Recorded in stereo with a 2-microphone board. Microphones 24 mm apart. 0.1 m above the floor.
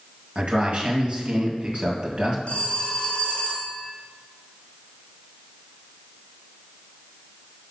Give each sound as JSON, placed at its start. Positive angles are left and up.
{"t": 0.3, "sound": "a man speaking", "side_deg": -50, "distance_m": 1.7}
{"t": 2.5, "sound": "a phone ringing", "side_deg": 60, "distance_m": 1.6}